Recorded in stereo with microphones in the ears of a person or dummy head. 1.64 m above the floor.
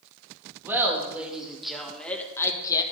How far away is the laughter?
About 2 m.